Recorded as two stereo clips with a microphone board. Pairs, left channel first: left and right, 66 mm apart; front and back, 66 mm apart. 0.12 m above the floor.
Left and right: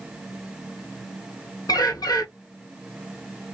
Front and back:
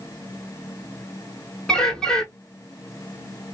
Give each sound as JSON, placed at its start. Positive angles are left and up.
{"t": 1.7, "sound": "a bird", "azimuth_deg": 75, "distance_m": 1.1}